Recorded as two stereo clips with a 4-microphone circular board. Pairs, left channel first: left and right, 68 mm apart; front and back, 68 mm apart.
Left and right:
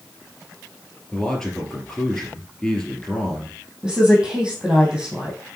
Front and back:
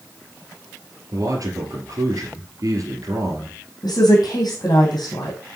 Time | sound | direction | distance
1.1 | a man speaking | 175° left | 3 m
3.8 | a woman speaking | 10° right | 3.5 m